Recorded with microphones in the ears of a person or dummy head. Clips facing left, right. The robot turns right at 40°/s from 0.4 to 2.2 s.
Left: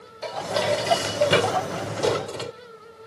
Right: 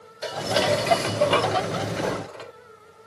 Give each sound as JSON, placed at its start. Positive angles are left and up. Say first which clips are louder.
{"t": 0.2, "sound": "dishes clattering", "louder": "right 1 dB", "azimuth_deg": -15}